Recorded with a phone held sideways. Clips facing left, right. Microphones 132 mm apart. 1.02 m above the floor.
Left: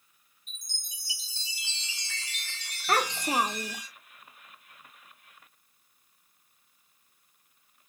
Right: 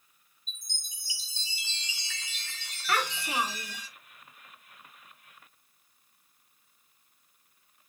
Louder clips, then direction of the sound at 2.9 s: Left 3 dB; 40° left (ahead or behind).